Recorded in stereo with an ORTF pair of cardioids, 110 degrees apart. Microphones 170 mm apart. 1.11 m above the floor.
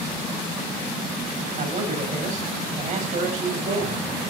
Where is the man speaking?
45° right, 5.5 m.